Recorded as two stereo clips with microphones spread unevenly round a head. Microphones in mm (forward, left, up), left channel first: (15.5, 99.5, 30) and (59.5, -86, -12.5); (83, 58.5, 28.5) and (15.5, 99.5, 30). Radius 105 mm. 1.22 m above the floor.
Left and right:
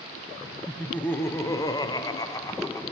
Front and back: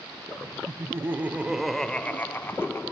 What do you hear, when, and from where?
0.7 s laughter: 160° right, 0.9 m; by 2.8 s 25° left, 1.1 m